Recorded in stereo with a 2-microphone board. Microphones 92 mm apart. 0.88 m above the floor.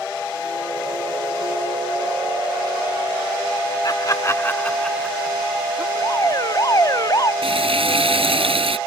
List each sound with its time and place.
3.8 s laughter: 50° left (ahead or behind); by 5.8 s 20° right (ahead or behind)
6.0 s an alarm: 40° left (ahead or behind)
7.4 s frying: 80° right